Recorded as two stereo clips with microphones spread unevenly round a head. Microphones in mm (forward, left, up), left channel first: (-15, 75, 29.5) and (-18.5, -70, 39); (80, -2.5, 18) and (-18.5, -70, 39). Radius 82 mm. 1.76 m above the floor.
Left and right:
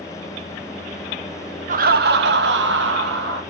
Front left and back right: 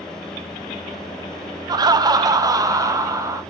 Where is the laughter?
110° right, 0.6 m; by 3.4 s 85° right, 1.9 m.